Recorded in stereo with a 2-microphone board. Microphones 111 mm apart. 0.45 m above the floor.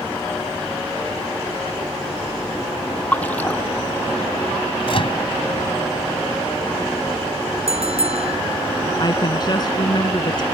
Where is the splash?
15° left (ahead or behind).